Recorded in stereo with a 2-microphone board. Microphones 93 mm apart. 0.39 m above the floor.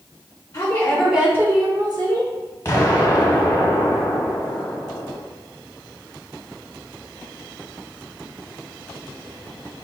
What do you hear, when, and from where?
0.5 s a woman speaking: 35° left (ahead or behind), 0.9 m; by 2.3 s 55° right (ahead or behind), 1.5 m
2.6 s an explosion: 30° left (ahead or behind), 1.0 m